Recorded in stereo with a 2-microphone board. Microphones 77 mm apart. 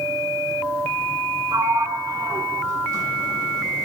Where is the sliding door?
50° right (ahead or behind), 1.2 m.